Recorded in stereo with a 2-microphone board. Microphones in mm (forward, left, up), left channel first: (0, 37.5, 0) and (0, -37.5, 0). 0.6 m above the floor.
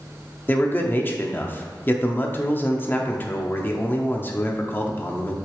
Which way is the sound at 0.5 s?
30° left (ahead or behind).